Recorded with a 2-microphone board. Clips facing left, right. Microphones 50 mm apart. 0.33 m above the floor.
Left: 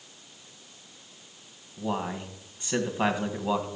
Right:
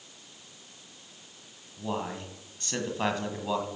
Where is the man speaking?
15° left (ahead or behind), 1.9 m.